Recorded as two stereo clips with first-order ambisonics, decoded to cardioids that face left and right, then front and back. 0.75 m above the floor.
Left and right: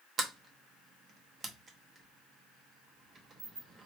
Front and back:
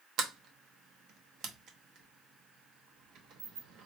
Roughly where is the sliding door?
Behind right.